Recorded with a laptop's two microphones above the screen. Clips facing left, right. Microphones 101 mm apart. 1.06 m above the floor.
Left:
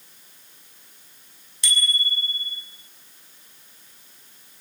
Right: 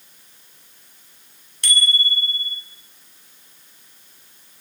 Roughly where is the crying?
I don't hear crying.